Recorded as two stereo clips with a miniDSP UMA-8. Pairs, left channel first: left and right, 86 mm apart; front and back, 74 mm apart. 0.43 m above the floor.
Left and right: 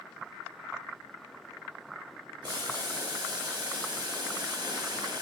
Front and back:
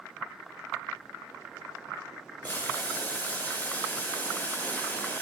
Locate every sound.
2.4 s boiling: 65° right, 0.7 m